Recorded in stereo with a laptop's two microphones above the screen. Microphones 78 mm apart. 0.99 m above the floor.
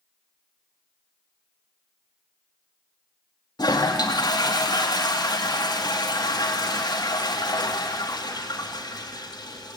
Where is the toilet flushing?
65° left (ahead or behind), 1.9 m.